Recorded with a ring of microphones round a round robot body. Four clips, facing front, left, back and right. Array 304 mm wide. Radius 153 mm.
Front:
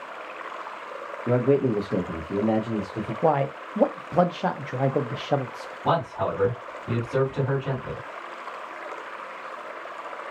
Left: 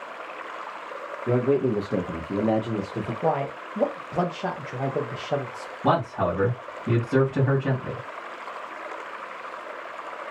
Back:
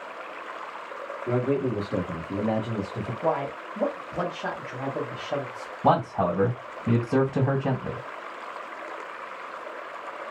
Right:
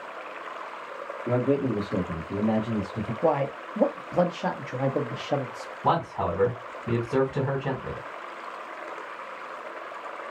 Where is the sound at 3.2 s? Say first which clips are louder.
Right 2 dB, front 4 dB; 10° right, 0.6 m.